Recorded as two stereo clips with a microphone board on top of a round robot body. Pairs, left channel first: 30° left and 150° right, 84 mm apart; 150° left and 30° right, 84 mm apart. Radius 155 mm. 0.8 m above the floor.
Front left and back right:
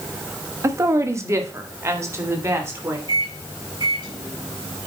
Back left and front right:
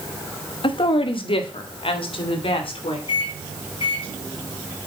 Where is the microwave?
175° left, 6 m.